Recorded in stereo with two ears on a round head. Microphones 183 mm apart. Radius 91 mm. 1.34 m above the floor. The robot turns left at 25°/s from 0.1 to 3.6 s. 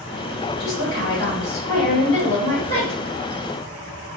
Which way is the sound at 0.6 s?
65° left.